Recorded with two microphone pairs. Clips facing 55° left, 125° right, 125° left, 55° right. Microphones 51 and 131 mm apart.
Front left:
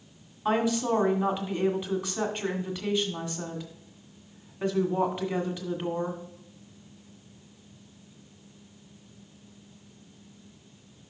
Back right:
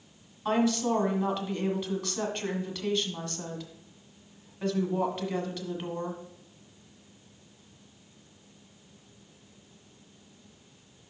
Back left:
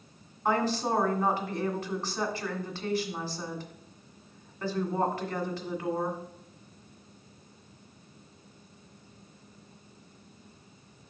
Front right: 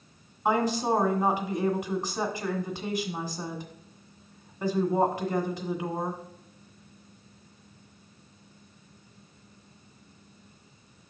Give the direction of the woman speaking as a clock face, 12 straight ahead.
12 o'clock.